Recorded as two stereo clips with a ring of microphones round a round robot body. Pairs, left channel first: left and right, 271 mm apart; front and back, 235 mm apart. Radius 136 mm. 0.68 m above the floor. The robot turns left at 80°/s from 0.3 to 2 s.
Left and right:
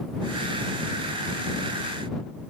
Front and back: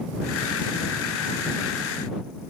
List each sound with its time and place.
Only background noise.